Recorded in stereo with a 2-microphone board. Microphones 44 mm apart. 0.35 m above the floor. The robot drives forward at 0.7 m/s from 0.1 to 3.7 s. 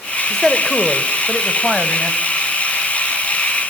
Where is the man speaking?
10° left (ahead or behind), 0.8 m; by 2.2 s 5° left (ahead or behind), 1.8 m.